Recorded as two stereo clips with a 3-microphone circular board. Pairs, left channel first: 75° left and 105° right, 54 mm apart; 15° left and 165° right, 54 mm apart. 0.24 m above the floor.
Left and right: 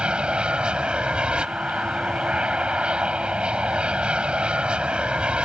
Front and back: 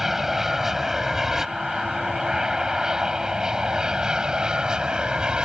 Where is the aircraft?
90° right; by 5.5 s 120° right.